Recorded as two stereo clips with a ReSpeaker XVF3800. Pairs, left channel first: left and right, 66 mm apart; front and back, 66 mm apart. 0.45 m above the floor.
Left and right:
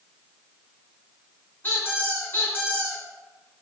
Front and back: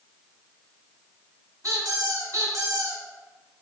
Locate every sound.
1.6 s a squeak: 150° left, 3 m